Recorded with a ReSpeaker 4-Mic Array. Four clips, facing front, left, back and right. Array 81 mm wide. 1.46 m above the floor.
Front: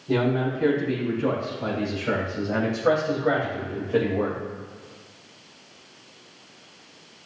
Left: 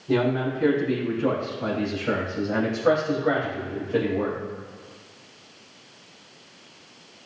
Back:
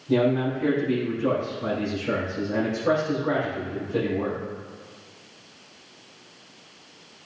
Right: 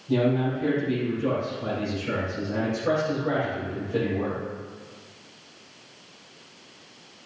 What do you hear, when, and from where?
0.1 s a man speaking: 55° left, 4 m; by 4.4 s 20° left, 1.9 m